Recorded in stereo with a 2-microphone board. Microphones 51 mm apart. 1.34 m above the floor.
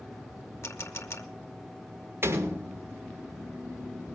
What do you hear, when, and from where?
0.6 s a camera shutter: 55° left (ahead or behind), 2 m
2.2 s a door slam: 50° right (ahead or behind), 3 m